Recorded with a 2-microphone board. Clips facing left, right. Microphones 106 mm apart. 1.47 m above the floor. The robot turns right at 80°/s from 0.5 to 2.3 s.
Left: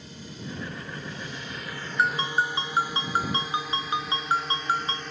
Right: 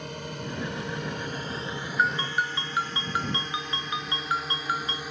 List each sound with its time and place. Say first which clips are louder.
0.0 s a drone: right 5 dB; 70° right (ahead or behind); by 5.1 s 10° right (ahead or behind)
2.0 s a ringtone: left 2 dB; 5° left (ahead or behind); by 5.0 s 30° left (ahead or behind)